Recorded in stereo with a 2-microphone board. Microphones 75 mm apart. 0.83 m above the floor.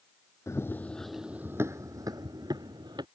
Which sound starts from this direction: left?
Running footsteps, at 0.5 s.